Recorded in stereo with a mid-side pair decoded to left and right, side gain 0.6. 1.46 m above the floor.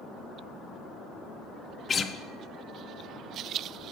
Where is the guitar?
30° left, 0.6 m.